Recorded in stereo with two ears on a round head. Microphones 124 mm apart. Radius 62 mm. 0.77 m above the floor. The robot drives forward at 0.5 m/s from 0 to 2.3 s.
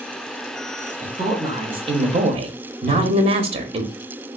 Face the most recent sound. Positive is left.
turn(degrees=15)  # may be behind; listen again after turning